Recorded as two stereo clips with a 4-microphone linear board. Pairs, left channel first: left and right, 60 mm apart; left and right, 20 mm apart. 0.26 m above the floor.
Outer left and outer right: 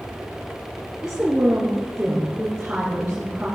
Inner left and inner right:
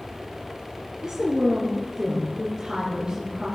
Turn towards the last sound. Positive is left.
turn(degrees=-10)  # may be behind; listen again after turning